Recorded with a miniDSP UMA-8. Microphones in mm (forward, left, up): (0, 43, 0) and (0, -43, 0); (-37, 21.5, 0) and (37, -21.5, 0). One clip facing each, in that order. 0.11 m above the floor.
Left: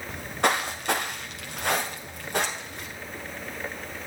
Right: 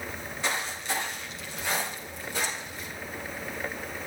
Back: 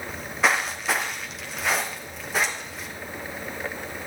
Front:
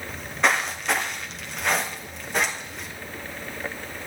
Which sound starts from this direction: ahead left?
Footsteps, at 0.1 s.